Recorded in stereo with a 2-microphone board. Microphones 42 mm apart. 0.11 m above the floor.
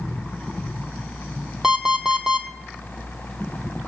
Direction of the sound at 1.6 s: 15° right (ahead or behind).